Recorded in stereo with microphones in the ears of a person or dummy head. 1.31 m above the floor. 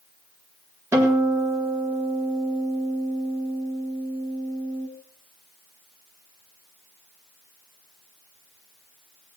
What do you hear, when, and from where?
0.9 s a guitar: 10° right (ahead or behind), 4 m